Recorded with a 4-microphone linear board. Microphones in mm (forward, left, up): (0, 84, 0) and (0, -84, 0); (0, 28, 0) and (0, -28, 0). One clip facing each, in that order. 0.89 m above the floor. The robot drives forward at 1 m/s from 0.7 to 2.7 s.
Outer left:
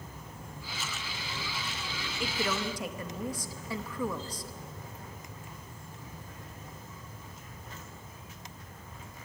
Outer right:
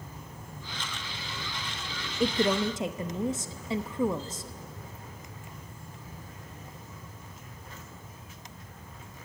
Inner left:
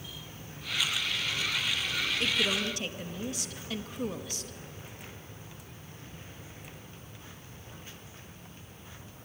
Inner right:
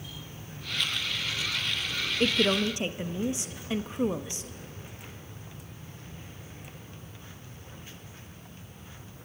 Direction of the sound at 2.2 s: 40° right (ahead or behind).